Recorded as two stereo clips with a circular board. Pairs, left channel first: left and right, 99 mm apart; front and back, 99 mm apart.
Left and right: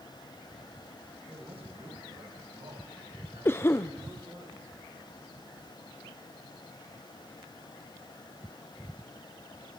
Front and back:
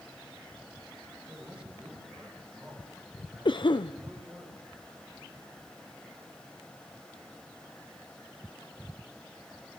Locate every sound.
1.3 s a man speaking: 105° right, 7 m; by 4.5 s 80° right, 9 m
3.5 s a cough: 25° left, 0.5 m